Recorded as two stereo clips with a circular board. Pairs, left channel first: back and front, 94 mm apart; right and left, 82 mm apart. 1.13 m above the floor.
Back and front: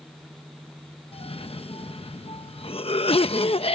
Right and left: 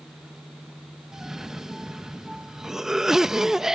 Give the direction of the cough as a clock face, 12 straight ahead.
6 o'clock.